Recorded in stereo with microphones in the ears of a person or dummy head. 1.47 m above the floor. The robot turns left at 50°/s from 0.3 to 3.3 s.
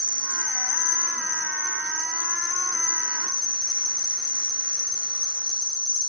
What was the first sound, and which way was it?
An insect, 160° left.